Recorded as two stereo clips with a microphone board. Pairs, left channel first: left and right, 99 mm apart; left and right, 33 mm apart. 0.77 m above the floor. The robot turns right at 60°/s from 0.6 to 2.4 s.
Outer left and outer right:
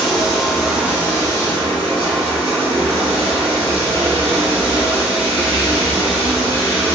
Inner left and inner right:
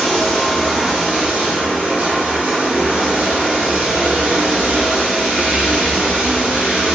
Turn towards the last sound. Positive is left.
turn(degrees=-70)